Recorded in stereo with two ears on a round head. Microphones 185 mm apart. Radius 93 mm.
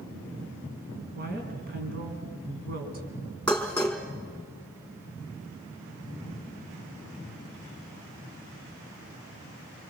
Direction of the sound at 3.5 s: 10° left (ahead or behind).